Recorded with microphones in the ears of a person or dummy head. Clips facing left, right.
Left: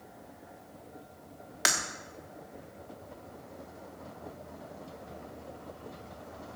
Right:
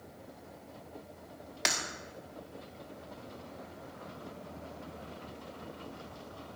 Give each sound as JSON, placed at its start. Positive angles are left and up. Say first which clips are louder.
{"t": 1.6, "sound": "breaking glass", "louder": "left 2 dB", "side_deg": 5, "distance_m": 1.2}